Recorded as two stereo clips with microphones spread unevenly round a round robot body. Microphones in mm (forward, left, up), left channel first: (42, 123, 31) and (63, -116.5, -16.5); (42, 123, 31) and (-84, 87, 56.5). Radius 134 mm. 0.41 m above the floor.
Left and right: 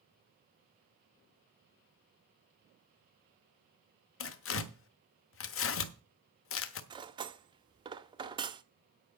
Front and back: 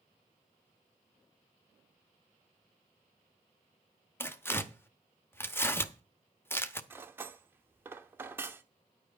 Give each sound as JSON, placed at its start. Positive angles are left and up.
{"t": 4.2, "sound": "tearing paper", "azimuth_deg": 70, "distance_m": 1.0}
{"t": 6.9, "sound": "cutlery clinking", "azimuth_deg": -85, "distance_m": 0.6}